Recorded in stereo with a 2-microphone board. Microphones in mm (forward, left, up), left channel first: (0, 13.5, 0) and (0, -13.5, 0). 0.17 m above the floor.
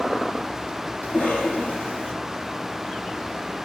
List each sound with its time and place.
1.0 s a cough: 75° left (ahead or behind), 5.5 m